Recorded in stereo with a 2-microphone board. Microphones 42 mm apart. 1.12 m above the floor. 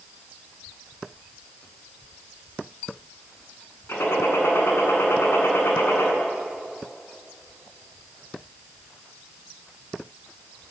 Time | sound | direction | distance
3.9 | a gunshot | 75° left (ahead or behind) | 7.5 m